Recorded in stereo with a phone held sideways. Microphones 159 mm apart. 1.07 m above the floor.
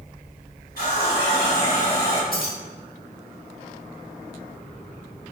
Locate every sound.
0.8 s a running tap: 70° left (ahead or behind), 1.7 m
2.3 s keys jangling: 65° left (ahead or behind), 0.7 m